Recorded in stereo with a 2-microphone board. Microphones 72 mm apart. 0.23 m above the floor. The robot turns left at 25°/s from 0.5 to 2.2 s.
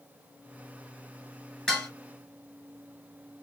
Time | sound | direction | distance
1.7 | dishes clattering | 10° left (ahead or behind) | 2.5 m